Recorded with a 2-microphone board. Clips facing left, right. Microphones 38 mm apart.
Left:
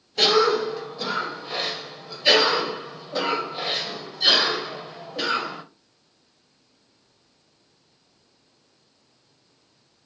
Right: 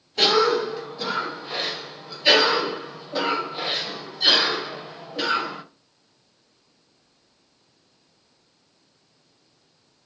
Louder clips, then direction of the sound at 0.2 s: Even; 5° right (ahead or behind).